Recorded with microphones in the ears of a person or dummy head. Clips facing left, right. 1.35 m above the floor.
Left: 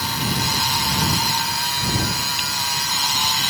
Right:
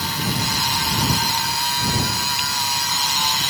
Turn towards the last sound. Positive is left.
No sound to turn to.